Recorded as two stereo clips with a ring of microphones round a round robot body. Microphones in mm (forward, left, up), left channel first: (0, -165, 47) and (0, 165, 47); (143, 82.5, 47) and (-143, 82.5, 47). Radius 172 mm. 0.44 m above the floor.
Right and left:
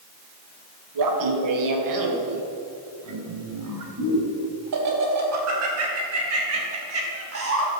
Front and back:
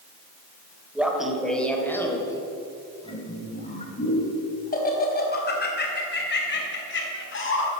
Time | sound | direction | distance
0.9 | laughter | 95° left | 2.5 m